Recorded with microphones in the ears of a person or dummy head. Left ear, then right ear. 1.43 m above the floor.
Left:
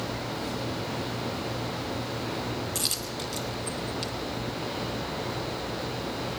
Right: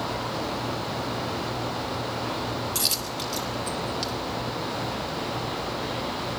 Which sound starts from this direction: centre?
A dropped coin, at 2.8 s.